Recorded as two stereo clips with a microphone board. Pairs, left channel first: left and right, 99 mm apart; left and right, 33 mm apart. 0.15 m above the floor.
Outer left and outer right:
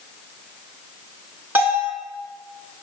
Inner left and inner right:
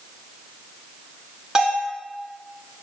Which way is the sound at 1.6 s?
20° right (ahead or behind).